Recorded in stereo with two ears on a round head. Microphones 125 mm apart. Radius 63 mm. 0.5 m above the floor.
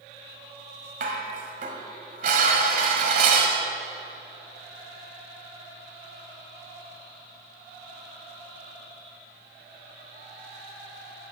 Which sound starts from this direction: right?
Dishes clattering, at 1.0 s.